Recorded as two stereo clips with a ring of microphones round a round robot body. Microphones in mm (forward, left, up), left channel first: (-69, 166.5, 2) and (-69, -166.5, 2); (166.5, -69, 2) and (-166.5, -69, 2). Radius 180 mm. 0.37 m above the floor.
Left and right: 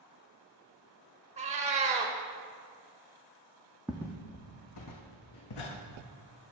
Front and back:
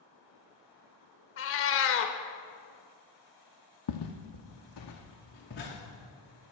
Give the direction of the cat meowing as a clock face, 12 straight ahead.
1 o'clock.